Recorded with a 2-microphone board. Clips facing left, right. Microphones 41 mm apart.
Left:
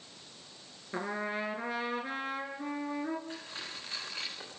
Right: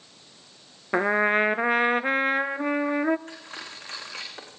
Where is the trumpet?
60° right (ahead or behind), 0.8 m.